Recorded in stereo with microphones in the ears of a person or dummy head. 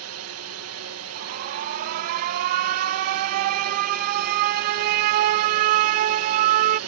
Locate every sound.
0.0 s a drone: 75° right (ahead or behind)
1.1 s an alarm: 50° right (ahead or behind)